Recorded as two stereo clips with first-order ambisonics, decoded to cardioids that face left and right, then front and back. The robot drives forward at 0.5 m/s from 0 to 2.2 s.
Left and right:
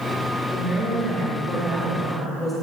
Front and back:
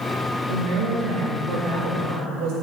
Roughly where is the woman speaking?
Behind.